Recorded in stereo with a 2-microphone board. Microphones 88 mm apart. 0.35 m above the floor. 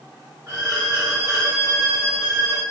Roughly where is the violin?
Right.